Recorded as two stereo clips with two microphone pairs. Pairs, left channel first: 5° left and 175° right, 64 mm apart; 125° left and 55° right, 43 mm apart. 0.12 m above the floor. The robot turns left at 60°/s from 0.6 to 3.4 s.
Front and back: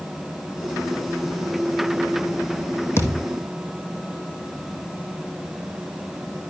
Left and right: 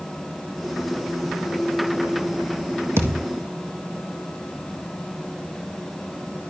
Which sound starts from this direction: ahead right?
A thud, at 3.0 s.